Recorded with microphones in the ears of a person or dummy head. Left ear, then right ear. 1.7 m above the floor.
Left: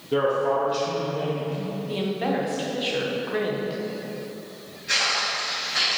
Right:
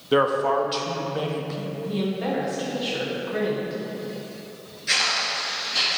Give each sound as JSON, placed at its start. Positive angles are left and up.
{"t": 0.1, "sound": "a man speaking", "side_deg": -50, "distance_m": 0.8}
{"t": 1.9, "sound": "a woman speaking", "side_deg": 20, "distance_m": 1.0}
{"t": 4.9, "sound": "footsteps", "side_deg": -25, "distance_m": 1.9}